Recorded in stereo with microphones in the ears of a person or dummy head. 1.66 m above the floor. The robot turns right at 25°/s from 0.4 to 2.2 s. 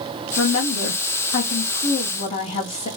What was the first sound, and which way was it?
A woman speaking, 105° left.